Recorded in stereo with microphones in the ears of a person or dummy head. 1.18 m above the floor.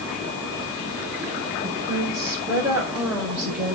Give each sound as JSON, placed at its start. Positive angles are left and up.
{"t": 1.6, "sound": "a woman speaking", "side_deg": -15, "distance_m": 5.5}